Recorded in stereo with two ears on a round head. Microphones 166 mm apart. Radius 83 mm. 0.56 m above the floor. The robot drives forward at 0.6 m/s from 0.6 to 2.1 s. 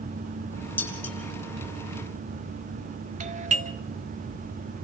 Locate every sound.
0.8 s dishes clattering: 10° left (ahead or behind), 7 m
3.2 s a doorbell: 40° right (ahead or behind), 1.3 m